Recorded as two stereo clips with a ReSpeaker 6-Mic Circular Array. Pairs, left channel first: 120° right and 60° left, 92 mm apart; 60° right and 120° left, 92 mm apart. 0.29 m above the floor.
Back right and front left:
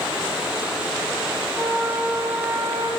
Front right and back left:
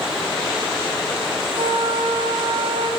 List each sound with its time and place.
1.6 s a flute: 110° left, 8 m